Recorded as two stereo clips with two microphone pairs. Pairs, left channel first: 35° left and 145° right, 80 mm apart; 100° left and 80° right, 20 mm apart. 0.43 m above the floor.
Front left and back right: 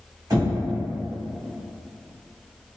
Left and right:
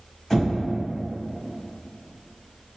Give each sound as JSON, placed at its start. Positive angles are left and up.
{"t": 0.3, "sound": "knocking", "azimuth_deg": 170, "distance_m": 1.7}